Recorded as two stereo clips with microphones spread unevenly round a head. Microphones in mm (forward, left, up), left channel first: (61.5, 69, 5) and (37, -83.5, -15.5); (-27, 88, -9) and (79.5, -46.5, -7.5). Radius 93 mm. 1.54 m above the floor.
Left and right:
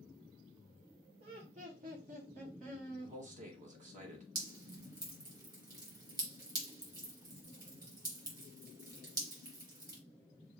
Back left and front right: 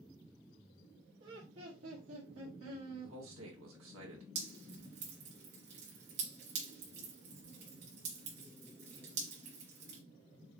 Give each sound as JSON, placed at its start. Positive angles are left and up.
{"t": 1.2, "sound": "laughter", "azimuth_deg": -70, "distance_m": 1.9}
{"t": 3.0, "sound": "a man speaking", "azimuth_deg": -60, "distance_m": 2.0}
{"t": 4.3, "sound": "dripping", "azimuth_deg": -35, "distance_m": 3.0}